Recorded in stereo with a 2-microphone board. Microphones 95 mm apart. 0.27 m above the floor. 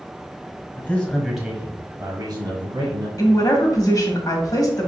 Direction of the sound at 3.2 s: 40° left (ahead or behind).